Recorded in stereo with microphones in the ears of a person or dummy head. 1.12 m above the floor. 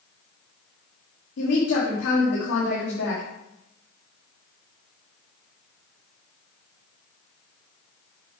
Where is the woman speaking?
80° left, 1.7 m.